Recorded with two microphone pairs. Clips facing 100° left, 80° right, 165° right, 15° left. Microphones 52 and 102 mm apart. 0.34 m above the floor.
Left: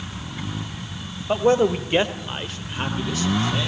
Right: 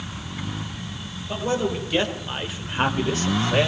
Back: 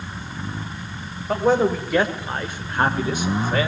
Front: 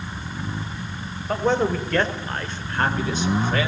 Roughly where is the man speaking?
Left.